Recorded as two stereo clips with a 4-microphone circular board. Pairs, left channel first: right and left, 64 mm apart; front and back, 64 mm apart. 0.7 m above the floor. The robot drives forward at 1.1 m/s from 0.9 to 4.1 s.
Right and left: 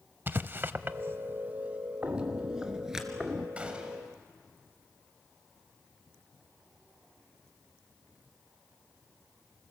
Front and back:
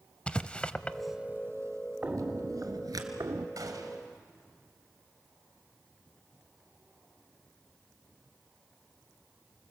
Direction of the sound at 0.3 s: 60° left.